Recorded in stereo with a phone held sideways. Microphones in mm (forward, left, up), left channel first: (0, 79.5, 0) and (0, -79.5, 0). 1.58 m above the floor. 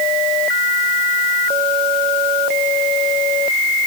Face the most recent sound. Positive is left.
No sound to turn to.